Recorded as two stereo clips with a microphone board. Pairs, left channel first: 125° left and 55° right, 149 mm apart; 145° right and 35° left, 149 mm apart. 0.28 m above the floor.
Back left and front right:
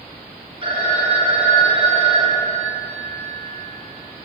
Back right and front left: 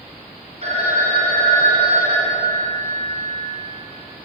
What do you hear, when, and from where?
0.6 s a phone ringing: 5° right, 1.4 m